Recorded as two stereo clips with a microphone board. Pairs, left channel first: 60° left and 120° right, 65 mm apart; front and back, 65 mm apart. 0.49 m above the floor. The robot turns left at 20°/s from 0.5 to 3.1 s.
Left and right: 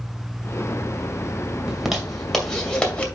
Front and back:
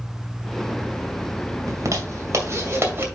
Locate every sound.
1.7 s a zipper: 160° left, 2 m; by 3.0 s 130° left, 2 m